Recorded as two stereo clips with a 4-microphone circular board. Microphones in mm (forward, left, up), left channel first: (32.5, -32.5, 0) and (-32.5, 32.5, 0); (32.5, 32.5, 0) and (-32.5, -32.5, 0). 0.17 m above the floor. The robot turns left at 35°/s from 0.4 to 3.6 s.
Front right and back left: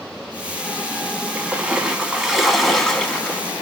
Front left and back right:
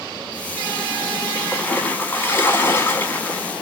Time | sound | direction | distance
1.4 | a splash | 90° left | 0.7 m